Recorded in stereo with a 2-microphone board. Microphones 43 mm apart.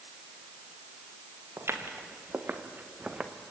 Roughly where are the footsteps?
Right.